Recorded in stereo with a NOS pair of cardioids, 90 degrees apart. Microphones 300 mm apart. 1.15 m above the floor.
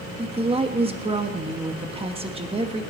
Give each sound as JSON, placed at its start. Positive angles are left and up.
{"t": 0.2, "sound": "a woman speaking", "azimuth_deg": -20, "distance_m": 1.3}